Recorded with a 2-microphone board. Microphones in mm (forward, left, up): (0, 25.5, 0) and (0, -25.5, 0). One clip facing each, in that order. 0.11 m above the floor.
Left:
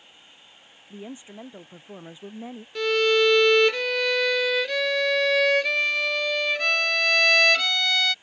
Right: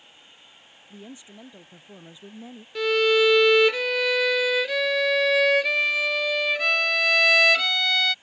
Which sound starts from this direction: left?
A woman speaking, at 0.9 s.